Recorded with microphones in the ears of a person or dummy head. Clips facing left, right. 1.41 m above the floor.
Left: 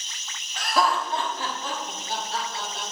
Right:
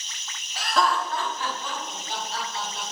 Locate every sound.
0.6 s laughter: centre (ahead or behind), 0.7 m; by 2.8 s 50° left (ahead or behind), 2.5 m